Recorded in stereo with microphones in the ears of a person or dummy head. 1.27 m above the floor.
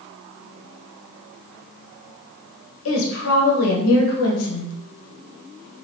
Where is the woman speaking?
80° left, 1.0 m.